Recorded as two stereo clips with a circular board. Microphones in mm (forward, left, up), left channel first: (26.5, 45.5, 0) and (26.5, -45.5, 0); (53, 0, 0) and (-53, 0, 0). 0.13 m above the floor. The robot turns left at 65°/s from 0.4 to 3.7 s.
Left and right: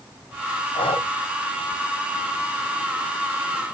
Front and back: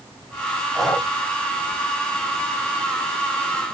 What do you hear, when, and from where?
0.8 s breathing: 95° left, 4.5 m; by 1.1 s 75° left, 4.5 m